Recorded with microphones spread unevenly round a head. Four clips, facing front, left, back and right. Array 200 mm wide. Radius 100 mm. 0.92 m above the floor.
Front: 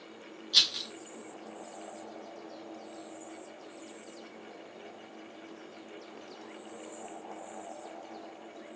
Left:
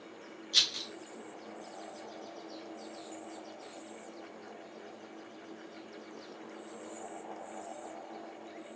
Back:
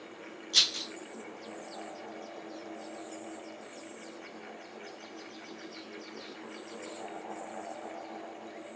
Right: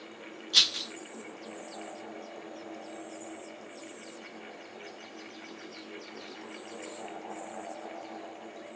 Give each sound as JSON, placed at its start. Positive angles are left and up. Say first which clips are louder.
{"t": 0.5, "sound": "a rattle", "louder": "right 4 dB, even", "azimuth_deg": -90, "distance_m": 0.7}